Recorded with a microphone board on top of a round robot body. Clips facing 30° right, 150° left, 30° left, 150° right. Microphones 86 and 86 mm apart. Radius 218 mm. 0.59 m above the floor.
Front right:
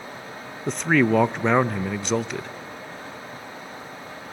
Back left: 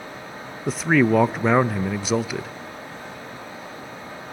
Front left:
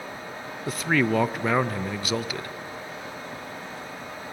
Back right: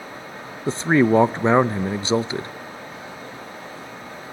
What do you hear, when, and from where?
0.7 s a man speaking: 130° right, 0.6 m